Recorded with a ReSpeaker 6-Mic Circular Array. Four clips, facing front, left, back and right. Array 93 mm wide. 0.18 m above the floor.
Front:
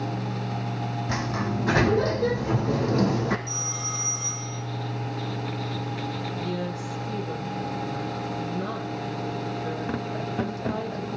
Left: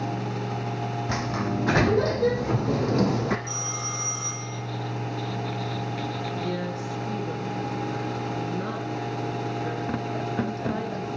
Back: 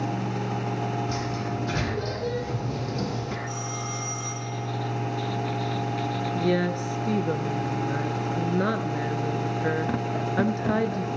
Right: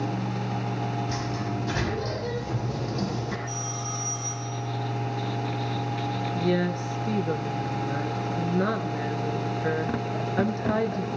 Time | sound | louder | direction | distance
1.1 | a sliding door | left 3 dB, front 1 dB | 60° left | 4.5 m
3.5 | a phone ringing | even, back 2 dB | 105° left | 6 m
6.3 | a woman speaking | right 4 dB, back 6 dB | 150° right | 3 m